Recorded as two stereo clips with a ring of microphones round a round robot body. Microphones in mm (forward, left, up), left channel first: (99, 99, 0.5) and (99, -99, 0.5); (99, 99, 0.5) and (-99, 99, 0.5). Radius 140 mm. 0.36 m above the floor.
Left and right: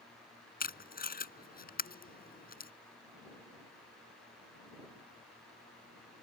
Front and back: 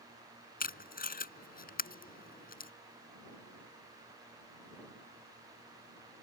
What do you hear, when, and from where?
0.6 s tape being pulled: 45° left